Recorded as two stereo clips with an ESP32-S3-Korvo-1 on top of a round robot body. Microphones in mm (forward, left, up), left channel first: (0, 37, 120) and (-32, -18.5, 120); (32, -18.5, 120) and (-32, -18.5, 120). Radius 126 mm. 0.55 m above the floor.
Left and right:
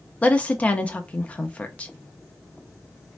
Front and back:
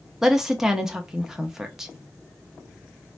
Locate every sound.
0.2 s a woman speaking: 105° left, 0.8 m